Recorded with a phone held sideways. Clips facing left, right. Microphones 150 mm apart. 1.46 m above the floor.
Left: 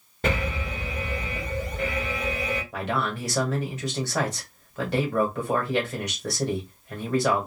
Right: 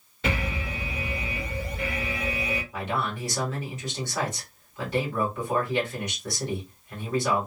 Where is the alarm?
50° left (ahead or behind), 1.7 m.